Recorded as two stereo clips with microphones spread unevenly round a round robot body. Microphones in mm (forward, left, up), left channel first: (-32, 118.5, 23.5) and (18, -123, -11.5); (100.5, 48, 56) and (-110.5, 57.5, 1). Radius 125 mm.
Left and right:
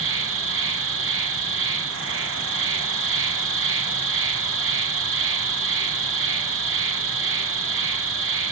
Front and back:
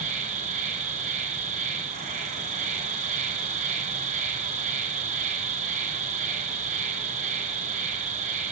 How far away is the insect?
About 1.5 m.